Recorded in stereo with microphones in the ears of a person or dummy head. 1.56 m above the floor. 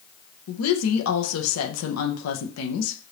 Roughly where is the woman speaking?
Left.